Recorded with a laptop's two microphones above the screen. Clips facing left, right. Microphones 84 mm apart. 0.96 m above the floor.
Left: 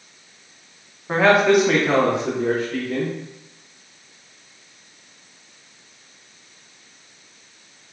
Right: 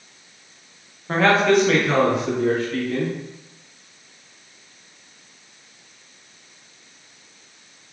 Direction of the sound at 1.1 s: 5° left (ahead or behind).